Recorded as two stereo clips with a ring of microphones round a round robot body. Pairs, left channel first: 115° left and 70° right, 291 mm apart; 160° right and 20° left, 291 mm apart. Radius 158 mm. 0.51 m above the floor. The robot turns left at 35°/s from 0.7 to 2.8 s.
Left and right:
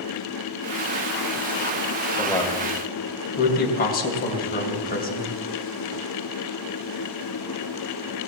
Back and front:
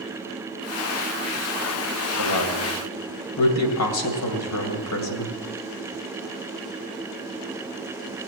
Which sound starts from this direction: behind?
A man speaking, at 2.2 s.